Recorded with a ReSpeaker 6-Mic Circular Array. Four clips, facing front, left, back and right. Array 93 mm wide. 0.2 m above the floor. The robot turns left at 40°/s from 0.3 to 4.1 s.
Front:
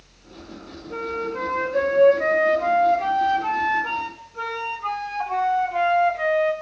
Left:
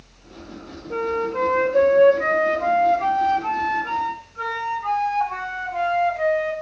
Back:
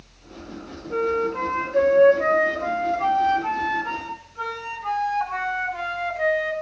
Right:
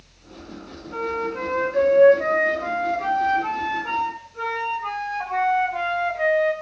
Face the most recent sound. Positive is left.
turn(degrees=-25)